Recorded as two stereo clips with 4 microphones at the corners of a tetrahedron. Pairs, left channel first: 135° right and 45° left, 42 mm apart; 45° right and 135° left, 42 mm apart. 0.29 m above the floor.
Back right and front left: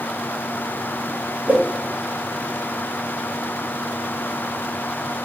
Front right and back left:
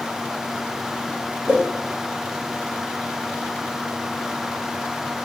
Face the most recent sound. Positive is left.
turn(degrees=95)